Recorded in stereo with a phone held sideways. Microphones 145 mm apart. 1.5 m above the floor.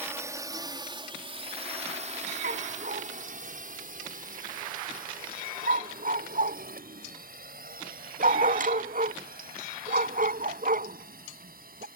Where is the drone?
15° right (ahead or behind); by 12.0 s 80° right.